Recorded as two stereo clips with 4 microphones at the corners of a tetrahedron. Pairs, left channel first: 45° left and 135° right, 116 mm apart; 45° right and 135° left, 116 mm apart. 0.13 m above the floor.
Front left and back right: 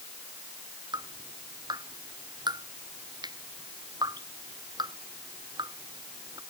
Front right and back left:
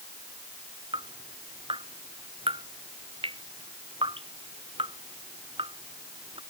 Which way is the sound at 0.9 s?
175° left.